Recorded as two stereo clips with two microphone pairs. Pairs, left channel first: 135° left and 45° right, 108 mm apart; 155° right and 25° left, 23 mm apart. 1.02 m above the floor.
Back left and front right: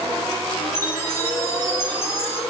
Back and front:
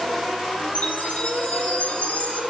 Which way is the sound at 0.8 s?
155° right.